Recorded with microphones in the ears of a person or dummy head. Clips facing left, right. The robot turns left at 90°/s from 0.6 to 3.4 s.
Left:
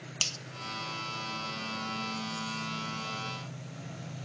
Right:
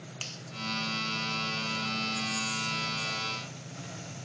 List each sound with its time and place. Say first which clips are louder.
0.2 s a finger snap: left 1 dB; 50° left (ahead or behind), 0.6 m